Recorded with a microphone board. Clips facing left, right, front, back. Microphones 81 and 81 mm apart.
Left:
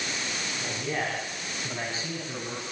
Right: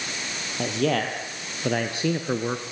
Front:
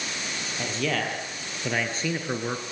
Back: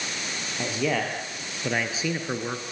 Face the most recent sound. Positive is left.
turn(degrees=-85)